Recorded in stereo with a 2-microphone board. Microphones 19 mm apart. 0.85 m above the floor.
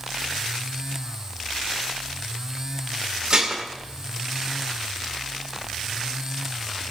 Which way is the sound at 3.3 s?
40° right (ahead or behind).